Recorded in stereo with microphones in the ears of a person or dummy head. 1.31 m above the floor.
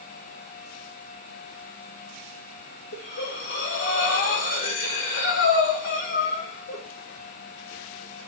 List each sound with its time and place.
2.9 s breathing: 65° left (ahead or behind), 0.8 m